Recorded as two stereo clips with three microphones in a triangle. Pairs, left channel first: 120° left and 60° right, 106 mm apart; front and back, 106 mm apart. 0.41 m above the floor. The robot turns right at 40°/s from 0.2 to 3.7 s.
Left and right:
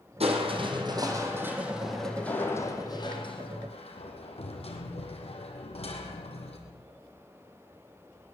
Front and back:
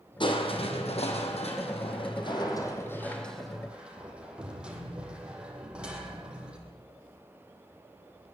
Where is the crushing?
40° right, 4 m; by 6.6 s 100° left, 4 m.